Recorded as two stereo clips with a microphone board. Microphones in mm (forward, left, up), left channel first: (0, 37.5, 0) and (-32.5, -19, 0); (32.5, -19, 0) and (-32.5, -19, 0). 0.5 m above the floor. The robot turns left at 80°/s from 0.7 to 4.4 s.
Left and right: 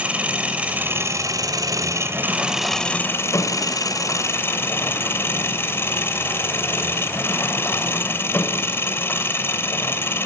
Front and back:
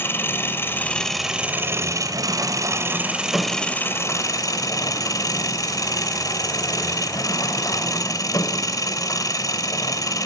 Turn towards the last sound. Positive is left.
turn(degrees=10)